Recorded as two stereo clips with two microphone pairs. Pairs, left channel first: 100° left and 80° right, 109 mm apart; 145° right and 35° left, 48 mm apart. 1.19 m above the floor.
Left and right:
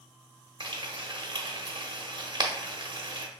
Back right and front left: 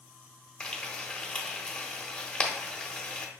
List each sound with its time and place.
0.6 s frying: 85° right, 1.0 m